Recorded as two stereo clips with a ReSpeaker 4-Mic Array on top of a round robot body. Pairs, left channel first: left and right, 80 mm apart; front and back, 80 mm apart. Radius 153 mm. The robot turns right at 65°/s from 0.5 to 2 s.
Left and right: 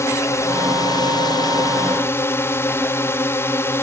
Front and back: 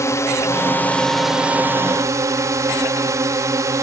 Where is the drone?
45° left; by 3.8 s 140° left.